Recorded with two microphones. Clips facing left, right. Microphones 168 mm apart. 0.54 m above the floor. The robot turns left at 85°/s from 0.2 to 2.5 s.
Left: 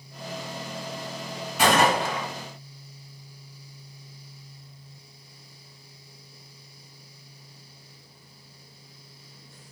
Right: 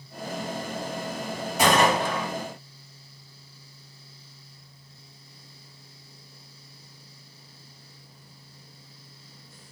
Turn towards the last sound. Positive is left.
turn(degrees=-120)